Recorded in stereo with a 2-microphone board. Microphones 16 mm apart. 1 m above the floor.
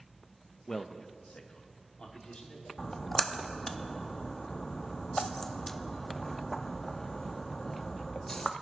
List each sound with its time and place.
0.7 s a man speaking: 30° left (ahead or behind), 0.6 m; by 2.7 s 85° left, 3 m
2.8 s a splash: 25° left (ahead or behind), 0.6 m